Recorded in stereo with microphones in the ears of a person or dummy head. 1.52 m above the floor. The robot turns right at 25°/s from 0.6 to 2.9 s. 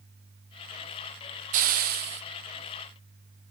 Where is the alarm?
No alarm in this recording.